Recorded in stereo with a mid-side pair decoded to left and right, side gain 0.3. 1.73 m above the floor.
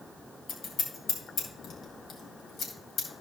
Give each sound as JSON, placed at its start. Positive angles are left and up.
{"t": 0.5, "sound": "scissors", "azimuth_deg": 65, "distance_m": 3.0}